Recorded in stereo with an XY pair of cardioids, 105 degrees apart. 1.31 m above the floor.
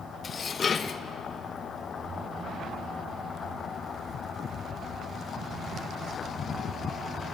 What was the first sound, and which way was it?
Dishes clattering, 45° left.